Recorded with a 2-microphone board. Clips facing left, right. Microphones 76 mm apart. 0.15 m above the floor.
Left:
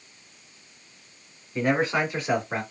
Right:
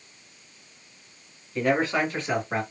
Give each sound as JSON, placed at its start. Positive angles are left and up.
{"t": 1.6, "sound": "a man speaking", "side_deg": 25, "distance_m": 1.7}